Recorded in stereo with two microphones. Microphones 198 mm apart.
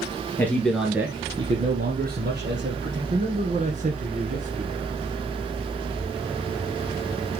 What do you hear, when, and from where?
0.4 s a man speaking: 10° left (ahead or behind), 2.5 m; by 3.0 s 65° right (ahead or behind), 3 m
3.1 s a man speaking: 40° right (ahead or behind), 1.8 m